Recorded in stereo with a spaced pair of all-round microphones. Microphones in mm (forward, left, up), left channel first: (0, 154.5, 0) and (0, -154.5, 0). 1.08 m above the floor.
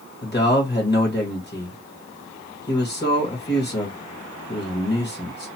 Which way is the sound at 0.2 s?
35° left (ahead or behind).